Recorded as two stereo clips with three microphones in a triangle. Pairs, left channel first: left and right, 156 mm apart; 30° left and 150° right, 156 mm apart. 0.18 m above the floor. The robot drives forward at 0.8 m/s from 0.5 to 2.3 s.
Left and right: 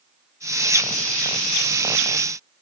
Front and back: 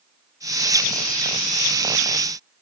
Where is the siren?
I don't hear a siren.